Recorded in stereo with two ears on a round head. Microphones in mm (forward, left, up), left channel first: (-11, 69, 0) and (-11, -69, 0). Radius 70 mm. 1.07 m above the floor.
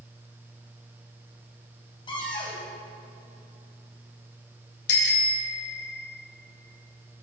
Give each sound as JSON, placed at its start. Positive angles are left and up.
{"t": 2.1, "sound": "a cupboard door", "side_deg": 30, "distance_m": 6.5}
{"t": 4.9, "sound": "a bicycle bell", "side_deg": 75, "distance_m": 3.5}